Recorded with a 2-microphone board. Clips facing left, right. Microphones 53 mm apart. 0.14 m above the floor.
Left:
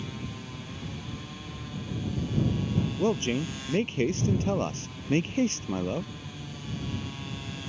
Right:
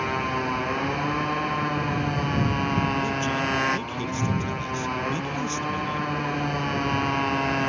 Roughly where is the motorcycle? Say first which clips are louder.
Right 14 dB; right.